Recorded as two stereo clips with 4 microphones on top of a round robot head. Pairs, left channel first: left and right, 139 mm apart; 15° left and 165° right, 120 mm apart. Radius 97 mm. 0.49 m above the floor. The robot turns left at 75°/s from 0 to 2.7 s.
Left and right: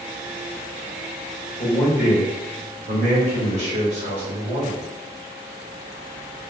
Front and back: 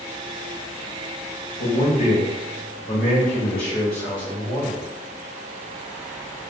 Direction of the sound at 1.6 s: 15° left.